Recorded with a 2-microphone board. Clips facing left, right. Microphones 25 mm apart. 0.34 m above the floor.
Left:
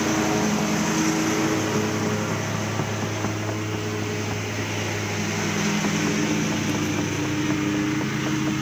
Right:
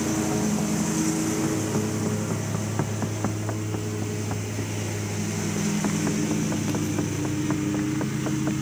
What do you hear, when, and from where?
0.0 s a lawn mower: 30° left (ahead or behind)